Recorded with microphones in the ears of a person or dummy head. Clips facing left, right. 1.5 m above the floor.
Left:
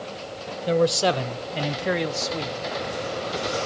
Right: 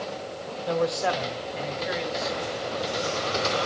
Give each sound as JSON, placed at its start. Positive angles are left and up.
{"t": 0.7, "sound": "a man speaking", "side_deg": 30, "distance_m": 1.1}